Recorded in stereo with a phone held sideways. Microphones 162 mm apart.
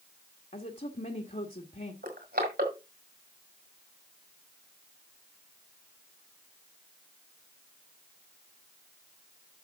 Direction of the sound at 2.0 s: 75° right (ahead or behind).